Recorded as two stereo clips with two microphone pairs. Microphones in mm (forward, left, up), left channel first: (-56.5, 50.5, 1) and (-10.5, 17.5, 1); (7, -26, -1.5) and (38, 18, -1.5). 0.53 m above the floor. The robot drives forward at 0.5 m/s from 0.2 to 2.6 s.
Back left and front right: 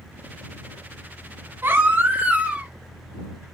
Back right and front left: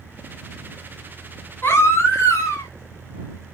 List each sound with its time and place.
1.6 s a baby crying: 80° right, 1.2 m; by 2.7 s 105° right, 1.2 m